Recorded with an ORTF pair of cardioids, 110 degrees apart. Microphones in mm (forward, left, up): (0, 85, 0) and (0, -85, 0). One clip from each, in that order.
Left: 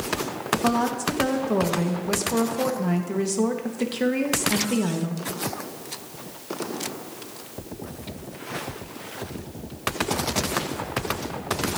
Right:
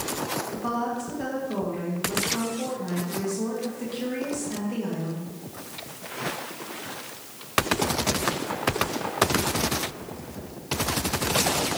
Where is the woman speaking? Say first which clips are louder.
Left 11 dB; 55° left, 2 m.